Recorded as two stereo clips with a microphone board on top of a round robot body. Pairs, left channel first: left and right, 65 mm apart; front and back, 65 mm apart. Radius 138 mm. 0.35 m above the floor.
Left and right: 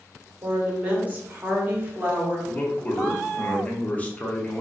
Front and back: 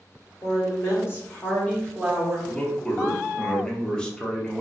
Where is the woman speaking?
20° right, 1.6 m; by 2.4 s 105° right, 1.0 m.